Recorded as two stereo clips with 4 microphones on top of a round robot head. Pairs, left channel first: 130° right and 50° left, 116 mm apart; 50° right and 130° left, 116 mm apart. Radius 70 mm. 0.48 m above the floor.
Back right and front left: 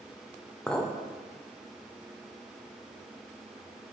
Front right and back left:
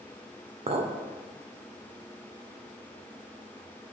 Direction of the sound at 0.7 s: 150° left.